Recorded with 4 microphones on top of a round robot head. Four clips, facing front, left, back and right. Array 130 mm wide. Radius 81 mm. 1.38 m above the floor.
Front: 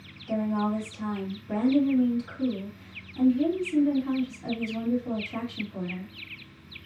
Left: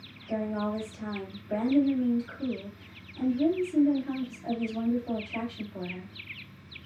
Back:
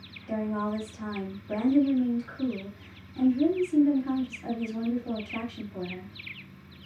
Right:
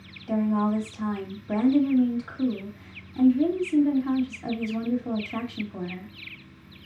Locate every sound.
0.3 s a woman speaking: 95° right, 2.5 m